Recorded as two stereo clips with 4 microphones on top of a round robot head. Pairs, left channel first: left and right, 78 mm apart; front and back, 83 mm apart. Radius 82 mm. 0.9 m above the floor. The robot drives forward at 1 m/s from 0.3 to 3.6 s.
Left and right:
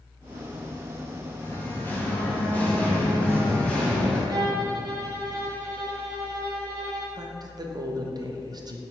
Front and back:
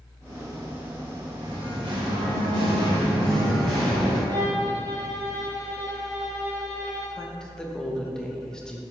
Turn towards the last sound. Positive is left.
turn(degrees=-80)